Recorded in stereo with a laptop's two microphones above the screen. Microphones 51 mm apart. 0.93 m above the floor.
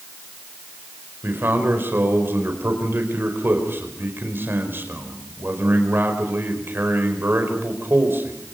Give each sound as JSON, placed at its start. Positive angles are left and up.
{"t": 1.2, "sound": "a man speaking", "side_deg": -45, "distance_m": 5.0}